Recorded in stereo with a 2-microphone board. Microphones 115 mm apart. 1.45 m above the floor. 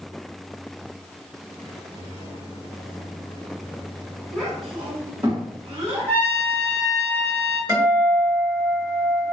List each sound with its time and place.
4.3 s a child speaking: 5° left (ahead or behind), 1.1 m; by 6.1 s 50° right (ahead or behind), 1.0 m
6.1 s a trumpet: 20° left (ahead or behind), 1.1 m
7.7 s a guitar: 25° right (ahead or behind), 1.7 m